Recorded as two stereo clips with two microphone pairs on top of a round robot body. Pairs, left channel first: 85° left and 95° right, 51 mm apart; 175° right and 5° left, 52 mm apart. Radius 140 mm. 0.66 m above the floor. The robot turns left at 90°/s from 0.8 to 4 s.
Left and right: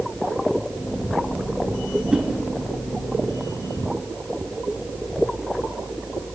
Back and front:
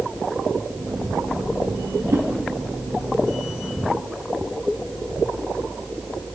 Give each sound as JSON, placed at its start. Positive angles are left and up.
{"t": 2.1, "sound": "a whoosh", "azimuth_deg": -20, "distance_m": 4.0}